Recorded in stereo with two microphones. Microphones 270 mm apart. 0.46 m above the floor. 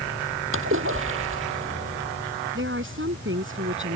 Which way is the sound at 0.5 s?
50° right (ahead or behind).